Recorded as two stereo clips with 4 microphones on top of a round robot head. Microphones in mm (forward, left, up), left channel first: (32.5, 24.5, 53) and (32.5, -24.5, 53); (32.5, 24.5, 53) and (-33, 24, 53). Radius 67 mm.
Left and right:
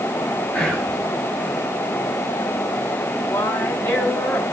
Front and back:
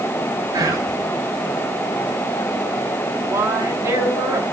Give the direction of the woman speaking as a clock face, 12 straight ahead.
7 o'clock.